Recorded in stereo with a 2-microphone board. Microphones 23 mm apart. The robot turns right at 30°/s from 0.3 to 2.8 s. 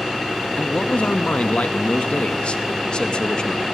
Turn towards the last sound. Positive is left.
turn(degrees=135)